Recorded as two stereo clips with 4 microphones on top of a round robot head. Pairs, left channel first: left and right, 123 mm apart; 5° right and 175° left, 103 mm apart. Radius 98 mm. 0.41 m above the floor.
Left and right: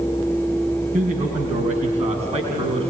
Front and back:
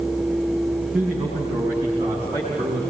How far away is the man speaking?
About 5 m.